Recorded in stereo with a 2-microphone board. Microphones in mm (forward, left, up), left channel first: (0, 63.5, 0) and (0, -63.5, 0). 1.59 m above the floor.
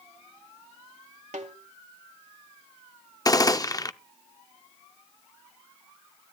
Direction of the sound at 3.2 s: 30° left (ahead or behind).